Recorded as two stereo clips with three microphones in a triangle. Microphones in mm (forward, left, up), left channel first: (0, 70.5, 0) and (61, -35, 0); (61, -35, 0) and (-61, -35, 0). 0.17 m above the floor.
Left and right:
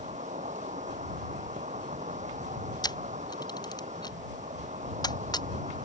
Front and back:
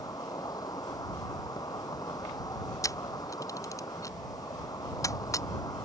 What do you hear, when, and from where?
0.0 s an insect: 60° right
2.8 s a camera shutter: 65° left